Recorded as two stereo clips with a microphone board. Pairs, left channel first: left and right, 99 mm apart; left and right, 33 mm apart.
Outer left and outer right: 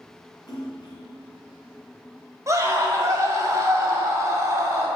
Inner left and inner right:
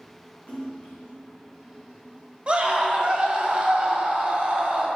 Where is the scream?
35° right (ahead or behind), 1.7 m.